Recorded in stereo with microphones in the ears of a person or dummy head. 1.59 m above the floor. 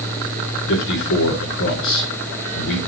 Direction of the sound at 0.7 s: 65° left (ahead or behind).